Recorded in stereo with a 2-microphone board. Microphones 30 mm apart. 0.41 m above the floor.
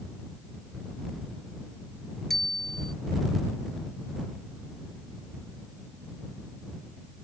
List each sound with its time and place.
2.3 s a bicycle bell: 10° left (ahead or behind)